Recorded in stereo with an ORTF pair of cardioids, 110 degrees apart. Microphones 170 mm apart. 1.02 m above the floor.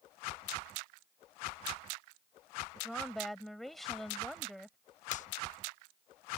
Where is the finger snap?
45° left.